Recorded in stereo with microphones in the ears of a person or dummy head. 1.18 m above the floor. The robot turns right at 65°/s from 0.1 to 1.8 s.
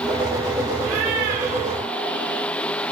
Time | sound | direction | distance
0.8 | a cat meowing | 90° right | 6 m